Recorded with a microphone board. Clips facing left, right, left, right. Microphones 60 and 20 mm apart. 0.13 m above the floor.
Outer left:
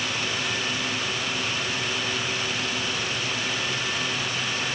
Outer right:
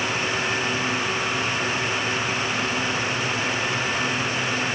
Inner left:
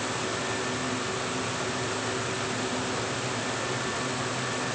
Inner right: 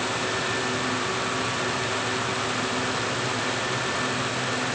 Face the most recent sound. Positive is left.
No sound to turn to.